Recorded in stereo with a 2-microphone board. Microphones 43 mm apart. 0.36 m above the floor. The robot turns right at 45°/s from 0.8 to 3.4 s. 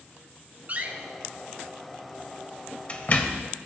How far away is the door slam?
About 0.9 m.